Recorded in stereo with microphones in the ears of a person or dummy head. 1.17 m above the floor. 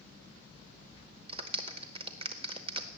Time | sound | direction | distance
1.3 | a clap | 30° right (ahead or behind) | 0.8 m